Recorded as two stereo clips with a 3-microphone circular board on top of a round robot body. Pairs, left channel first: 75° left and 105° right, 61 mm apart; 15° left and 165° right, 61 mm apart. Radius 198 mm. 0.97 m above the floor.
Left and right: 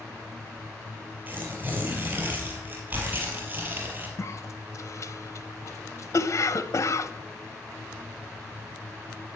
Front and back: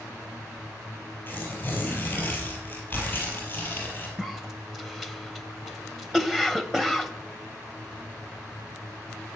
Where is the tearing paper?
50° right, 4.5 m.